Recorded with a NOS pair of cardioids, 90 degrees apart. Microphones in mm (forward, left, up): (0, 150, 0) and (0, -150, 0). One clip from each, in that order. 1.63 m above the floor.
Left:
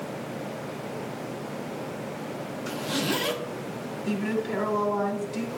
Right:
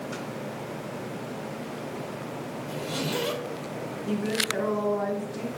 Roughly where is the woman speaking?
Left.